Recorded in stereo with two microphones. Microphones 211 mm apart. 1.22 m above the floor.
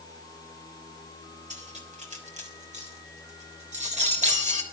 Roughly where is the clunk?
I don't hear a clunk.